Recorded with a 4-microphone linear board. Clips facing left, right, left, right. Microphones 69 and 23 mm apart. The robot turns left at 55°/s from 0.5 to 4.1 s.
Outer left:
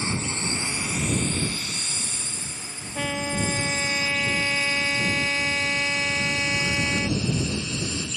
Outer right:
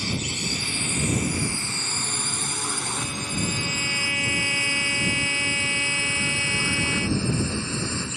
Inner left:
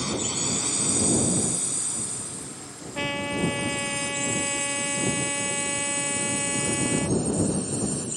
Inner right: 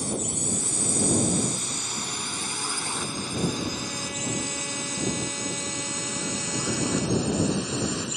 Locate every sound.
0.0 s a drone: 30° left (ahead or behind); by 8.2 s 35° right (ahead or behind)
3.0 s a trumpet: 85° left; by 7.2 s 25° left